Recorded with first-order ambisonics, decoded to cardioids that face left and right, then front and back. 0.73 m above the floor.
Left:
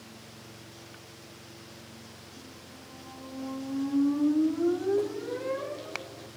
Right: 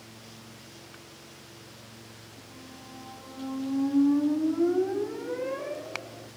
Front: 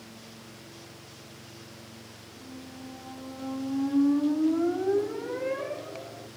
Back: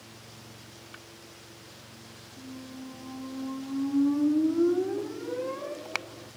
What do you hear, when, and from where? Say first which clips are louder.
2.4 s a squeak: right 1 dB, back 2 dB; 10° right, 2.5 m